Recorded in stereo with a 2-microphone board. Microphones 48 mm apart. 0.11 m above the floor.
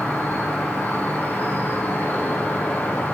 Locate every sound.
0.0 s an insect: 40° left (ahead or behind), 2.5 m